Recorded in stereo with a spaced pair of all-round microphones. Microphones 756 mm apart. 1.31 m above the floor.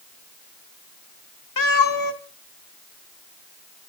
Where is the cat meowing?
25° left (ahead or behind), 0.9 m.